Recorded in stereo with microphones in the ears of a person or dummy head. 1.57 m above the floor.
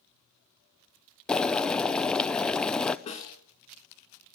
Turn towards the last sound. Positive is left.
turn(degrees=35)  # may be behind; listen again after turning